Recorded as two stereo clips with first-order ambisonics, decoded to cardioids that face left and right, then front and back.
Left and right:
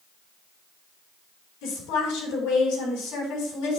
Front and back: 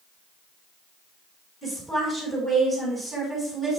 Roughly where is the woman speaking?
Left.